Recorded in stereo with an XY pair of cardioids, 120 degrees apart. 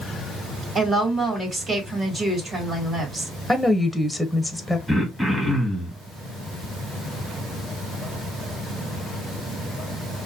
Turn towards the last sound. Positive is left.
turn(degrees=-5)